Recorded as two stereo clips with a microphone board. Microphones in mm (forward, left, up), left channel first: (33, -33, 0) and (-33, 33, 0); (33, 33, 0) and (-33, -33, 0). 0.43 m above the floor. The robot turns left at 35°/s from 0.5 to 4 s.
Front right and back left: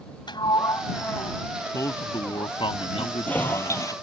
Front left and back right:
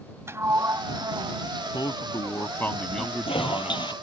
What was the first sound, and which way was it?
A sliding door, 75° right.